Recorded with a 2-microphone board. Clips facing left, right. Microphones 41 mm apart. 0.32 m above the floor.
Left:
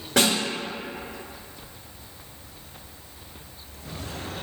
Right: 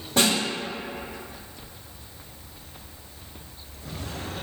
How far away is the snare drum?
About 1.5 m.